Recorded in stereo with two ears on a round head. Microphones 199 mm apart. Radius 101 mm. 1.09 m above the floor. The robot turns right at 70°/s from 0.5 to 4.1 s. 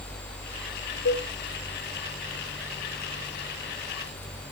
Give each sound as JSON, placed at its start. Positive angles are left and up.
{"t": 1.1, "sound": "a cowbell", "side_deg": 70, "distance_m": 1.6}